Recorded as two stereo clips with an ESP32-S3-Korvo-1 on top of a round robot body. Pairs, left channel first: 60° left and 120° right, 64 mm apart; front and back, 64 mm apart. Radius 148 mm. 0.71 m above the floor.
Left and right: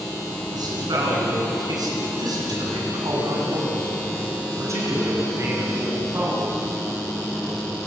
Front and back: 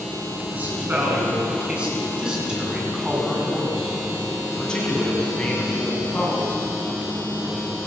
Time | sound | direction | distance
0.5 | a man speaking | 115° right | 8 m